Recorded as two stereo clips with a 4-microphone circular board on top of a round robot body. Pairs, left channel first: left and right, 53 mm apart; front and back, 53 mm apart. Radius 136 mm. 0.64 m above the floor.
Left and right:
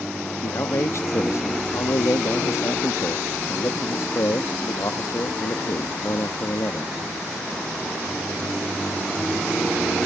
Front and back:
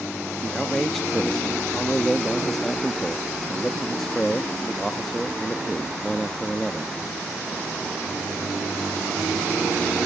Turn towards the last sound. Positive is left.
turn(degrees=85)